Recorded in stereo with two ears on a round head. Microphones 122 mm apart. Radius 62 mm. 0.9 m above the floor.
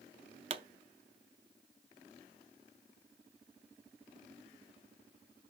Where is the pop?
40° right (ahead or behind), 0.5 m.